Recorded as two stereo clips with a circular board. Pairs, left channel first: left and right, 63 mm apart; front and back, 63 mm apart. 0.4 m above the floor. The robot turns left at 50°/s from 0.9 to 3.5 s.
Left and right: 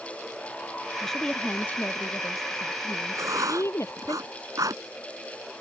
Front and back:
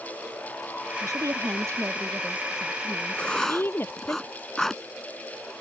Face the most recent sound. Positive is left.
turn(degrees=-85)